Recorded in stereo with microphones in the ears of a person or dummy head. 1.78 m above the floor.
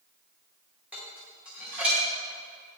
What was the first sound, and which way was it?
Dishes clattering, 5° right (ahead or behind).